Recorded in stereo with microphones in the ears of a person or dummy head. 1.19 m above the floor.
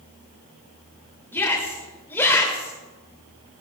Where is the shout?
10° left (ahead or behind), 2.5 m.